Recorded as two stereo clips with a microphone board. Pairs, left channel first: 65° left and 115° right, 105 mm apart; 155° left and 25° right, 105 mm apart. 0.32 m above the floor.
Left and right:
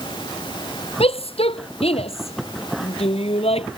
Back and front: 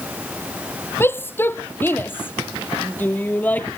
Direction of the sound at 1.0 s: 90° left.